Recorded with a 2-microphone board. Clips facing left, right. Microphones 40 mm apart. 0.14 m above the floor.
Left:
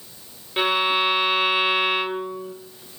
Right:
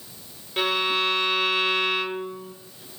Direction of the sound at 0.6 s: 20° left (ahead or behind).